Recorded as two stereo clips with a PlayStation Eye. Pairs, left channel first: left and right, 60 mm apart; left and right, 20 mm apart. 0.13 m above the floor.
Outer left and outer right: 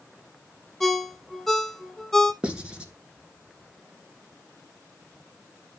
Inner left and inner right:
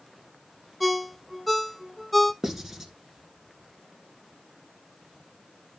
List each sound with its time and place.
0.8 s a ringtone: centre (ahead or behind), 0.6 m
2.4 s writing: 20° right (ahead or behind), 2.0 m